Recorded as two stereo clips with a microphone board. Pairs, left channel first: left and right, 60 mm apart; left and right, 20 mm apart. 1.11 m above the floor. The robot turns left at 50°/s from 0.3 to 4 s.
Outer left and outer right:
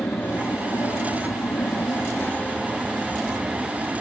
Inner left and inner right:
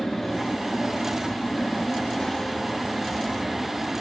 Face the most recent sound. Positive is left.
turn(degrees=-45)